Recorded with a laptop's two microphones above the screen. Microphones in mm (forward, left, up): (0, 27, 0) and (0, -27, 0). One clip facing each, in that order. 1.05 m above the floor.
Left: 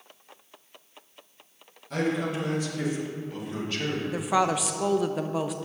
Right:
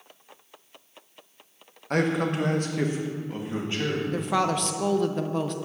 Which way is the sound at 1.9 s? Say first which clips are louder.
Right 3 dB; 55° right (ahead or behind).